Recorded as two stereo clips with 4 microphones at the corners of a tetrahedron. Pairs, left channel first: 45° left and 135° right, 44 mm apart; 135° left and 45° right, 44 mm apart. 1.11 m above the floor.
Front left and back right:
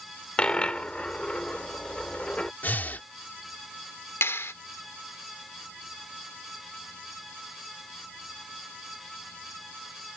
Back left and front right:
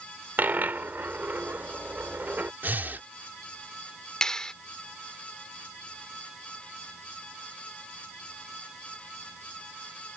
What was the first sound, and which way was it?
A dropped coin, 15° right.